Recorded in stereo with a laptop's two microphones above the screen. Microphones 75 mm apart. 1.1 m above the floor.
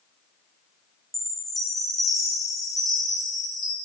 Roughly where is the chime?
Centre.